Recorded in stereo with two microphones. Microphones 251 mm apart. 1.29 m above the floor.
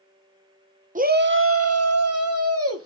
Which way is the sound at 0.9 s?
30° right (ahead or behind).